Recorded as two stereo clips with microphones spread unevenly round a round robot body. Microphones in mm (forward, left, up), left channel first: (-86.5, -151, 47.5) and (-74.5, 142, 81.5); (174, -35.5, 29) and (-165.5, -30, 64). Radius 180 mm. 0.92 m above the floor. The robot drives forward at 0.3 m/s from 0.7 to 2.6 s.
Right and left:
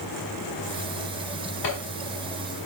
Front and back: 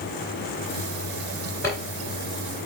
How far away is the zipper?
About 2.5 m.